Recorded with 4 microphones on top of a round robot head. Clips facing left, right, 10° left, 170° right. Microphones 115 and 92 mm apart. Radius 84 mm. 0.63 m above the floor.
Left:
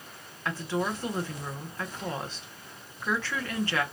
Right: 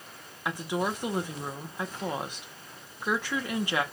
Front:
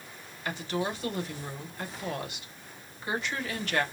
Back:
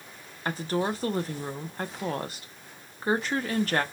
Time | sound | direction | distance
0.5 | a woman speaking | 155° right | 0.8 m